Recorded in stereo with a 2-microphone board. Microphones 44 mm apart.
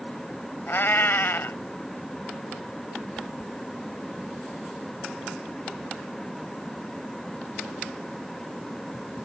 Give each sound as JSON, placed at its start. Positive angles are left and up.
{"t": 0.7, "sound": "a cat meowing", "side_deg": 55}